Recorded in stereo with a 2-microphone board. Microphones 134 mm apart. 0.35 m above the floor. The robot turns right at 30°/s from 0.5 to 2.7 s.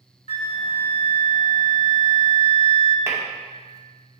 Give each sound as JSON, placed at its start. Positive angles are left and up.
{"t": 0.3, "sound": "a flute", "azimuth_deg": 60, "distance_m": 0.7}
{"t": 3.1, "sound": "tapping", "side_deg": -20, "distance_m": 2.0}